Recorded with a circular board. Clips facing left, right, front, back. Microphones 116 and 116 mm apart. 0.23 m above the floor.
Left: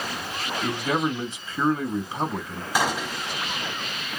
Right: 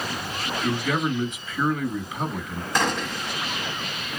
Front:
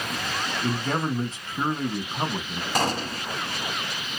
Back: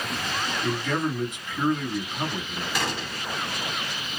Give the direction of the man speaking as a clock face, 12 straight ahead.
10 o'clock.